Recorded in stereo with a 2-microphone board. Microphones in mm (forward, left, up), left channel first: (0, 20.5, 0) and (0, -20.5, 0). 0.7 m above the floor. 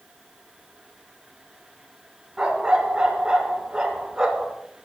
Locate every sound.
2.4 s a dog barking: 20° right (ahead or behind), 1.9 m